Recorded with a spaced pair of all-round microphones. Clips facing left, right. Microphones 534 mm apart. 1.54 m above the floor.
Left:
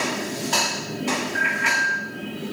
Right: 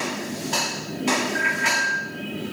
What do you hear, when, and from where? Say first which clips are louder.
1.4 s a bicycle bell: right 1 dB; 10° left (ahead or behind), 6.5 m